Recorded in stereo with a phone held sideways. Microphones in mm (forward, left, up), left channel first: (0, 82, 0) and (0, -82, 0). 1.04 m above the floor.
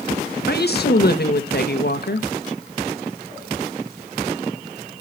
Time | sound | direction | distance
0.5 | a woman speaking | 65° left (ahead or behind) | 1.5 m